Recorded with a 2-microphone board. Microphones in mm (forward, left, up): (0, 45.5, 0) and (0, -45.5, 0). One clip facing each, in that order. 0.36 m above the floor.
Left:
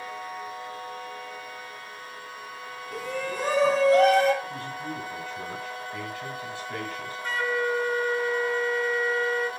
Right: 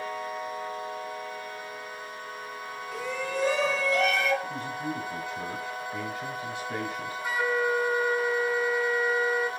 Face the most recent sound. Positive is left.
turn(degrees=-10)  # may be behind; listen again after turning